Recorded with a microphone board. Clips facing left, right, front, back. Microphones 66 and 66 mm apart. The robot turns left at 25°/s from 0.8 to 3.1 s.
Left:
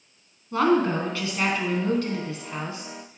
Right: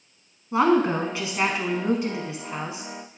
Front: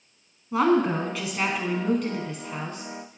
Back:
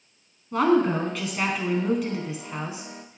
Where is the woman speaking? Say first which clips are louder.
Right 1 dB, back 1 dB; 75° right, 1.1 m; by 3.2 s 130° right, 1.1 m.